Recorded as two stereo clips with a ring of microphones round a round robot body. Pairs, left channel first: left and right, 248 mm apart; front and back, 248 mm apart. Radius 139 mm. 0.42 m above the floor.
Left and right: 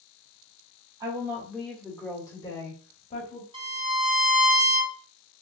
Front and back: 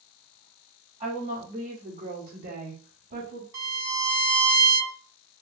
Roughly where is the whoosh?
No whoosh in this recording.